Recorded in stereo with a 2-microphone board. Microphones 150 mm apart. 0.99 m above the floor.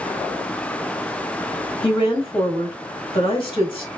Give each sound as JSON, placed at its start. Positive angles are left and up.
{"t": 1.8, "sound": "a woman speaking", "side_deg": 35, "distance_m": 1.4}